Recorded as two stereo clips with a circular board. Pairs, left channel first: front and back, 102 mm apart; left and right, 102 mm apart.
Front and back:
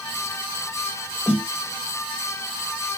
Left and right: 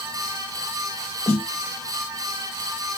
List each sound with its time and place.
1.3 s a snare drum: 100° left, 1.7 m